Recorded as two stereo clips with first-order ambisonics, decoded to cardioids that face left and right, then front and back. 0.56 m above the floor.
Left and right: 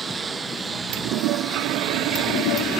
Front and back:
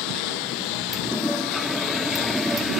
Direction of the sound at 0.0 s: 15° right.